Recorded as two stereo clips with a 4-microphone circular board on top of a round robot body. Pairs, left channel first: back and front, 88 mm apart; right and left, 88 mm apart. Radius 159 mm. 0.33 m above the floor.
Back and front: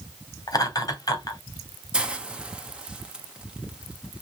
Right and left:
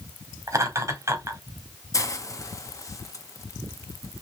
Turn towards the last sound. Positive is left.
turn(degrees=-70)